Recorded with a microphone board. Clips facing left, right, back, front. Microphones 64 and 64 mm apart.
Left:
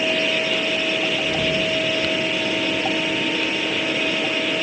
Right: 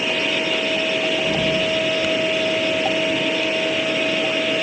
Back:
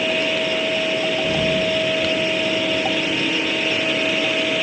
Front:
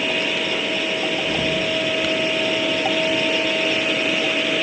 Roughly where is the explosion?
Behind right.